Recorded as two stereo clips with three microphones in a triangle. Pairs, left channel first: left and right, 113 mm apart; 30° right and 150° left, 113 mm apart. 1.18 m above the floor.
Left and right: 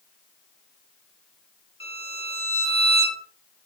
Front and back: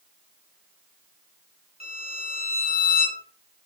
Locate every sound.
1.8 s a violin: 125° left, 3.5 m